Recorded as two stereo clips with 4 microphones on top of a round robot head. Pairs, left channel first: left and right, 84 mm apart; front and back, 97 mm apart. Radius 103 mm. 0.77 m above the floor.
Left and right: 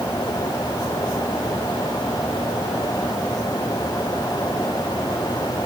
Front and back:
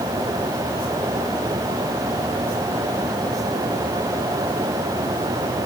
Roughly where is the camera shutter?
No camera shutter in this recording.